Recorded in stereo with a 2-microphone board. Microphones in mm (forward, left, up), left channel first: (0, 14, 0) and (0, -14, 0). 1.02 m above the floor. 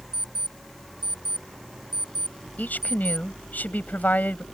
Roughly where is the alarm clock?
Right.